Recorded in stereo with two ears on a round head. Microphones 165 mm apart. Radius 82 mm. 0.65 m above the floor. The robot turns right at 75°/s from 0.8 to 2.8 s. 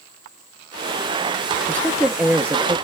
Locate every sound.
1.7 s a woman speaking: 10° left (ahead or behind), 0.5 m; by 2.8 s 20° right (ahead or behind), 0.5 m